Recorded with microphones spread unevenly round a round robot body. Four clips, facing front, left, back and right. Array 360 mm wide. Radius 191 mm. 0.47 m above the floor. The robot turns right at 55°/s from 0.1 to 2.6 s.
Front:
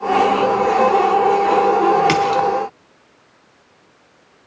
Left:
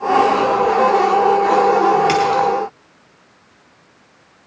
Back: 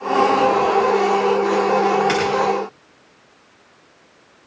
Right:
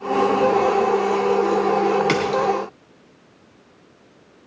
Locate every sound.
2.1 s a splash: 15° right, 3 m; by 2.4 s 5° left, 3 m